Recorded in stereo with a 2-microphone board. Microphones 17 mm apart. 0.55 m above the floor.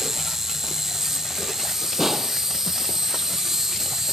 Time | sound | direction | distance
0.0 | an insect | 25° right (ahead or behind) | ?
2.0 | a snare drum | 15° right (ahead or behind) | ?